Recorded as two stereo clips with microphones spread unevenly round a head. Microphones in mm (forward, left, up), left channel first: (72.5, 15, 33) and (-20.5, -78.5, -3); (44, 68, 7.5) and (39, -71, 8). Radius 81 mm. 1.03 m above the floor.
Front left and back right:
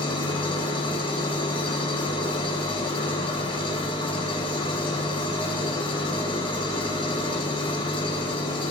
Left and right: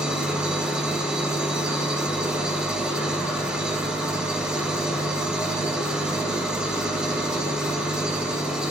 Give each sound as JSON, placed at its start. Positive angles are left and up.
{"t": 0.0, "sound": "an engine running", "azimuth_deg": -10, "distance_m": 5.5}